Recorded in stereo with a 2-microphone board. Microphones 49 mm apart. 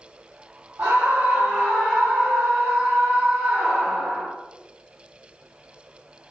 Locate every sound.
0.8 s a scream: 60° right (ahead or behind), 3.5 m; by 4.3 s 20° right (ahead or behind), 1.4 m